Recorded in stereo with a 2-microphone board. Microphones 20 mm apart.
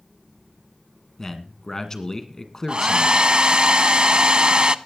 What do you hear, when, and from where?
1.2 s a man speaking: 25° left (ahead or behind), 1.8 m
2.7 s a hair dryer: 50° right (ahead or behind), 0.5 m